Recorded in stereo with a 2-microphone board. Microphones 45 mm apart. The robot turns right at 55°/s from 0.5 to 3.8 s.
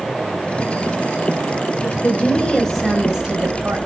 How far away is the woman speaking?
About 3 m.